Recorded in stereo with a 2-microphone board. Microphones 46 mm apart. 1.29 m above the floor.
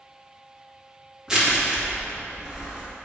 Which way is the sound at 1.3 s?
15° right (ahead or behind).